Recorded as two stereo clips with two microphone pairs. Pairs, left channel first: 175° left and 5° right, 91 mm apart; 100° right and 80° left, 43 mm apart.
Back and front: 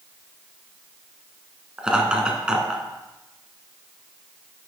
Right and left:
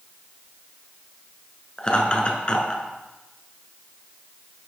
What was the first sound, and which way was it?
Laughter, 80° right.